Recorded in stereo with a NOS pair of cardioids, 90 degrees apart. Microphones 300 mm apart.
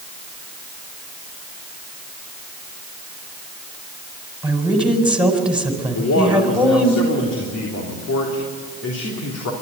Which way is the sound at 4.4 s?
5° right.